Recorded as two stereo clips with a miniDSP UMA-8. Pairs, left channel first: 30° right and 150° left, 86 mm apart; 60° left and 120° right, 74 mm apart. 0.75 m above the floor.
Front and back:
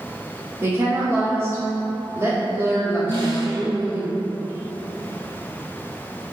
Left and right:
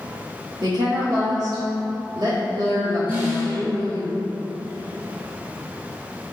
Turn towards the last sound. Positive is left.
turn(degrees=170)